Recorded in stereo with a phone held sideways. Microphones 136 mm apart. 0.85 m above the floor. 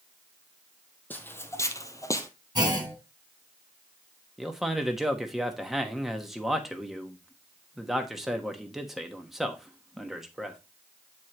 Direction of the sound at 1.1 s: 15° left (ahead or behind).